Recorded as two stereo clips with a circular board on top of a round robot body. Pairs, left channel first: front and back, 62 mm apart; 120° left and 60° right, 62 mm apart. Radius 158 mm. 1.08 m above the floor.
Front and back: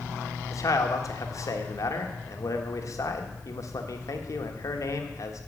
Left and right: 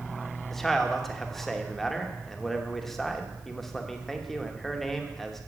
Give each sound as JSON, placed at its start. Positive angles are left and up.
{"t": 0.5, "sound": "a man speaking", "azimuth_deg": 35, "distance_m": 1.5}